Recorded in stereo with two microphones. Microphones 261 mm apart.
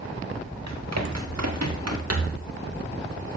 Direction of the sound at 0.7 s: 85° right.